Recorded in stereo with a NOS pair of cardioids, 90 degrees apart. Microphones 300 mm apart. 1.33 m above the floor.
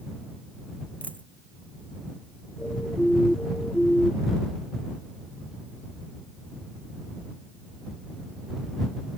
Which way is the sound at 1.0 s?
5° right.